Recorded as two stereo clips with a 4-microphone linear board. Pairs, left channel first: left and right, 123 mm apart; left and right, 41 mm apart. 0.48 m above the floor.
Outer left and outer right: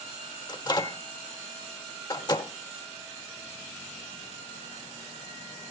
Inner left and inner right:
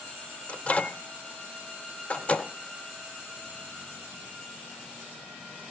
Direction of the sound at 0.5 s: 35° left (ahead or behind).